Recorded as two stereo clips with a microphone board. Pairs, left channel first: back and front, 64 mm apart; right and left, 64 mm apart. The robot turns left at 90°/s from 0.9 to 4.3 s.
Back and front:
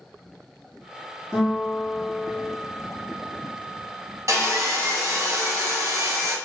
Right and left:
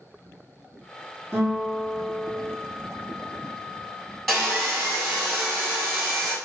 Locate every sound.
1.3 s a guitar: 60° left, 1.8 m; by 2.5 s 50° right, 1.8 m
4.3 s sawing: 5° right, 1.2 m